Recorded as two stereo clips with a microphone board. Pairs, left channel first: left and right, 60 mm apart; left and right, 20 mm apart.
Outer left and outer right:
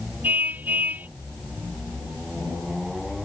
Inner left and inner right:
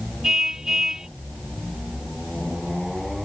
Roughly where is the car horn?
Right.